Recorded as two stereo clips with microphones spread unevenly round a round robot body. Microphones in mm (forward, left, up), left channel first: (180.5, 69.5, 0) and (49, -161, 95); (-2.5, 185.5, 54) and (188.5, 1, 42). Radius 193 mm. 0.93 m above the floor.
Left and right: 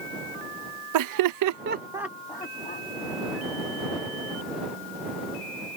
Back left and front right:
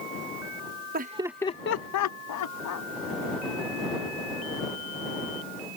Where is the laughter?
100° right; by 2.9 s 125° left.